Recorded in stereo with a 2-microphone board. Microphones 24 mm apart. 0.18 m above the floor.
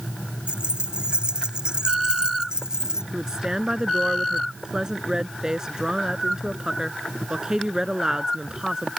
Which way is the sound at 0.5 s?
40° right (ahead or behind).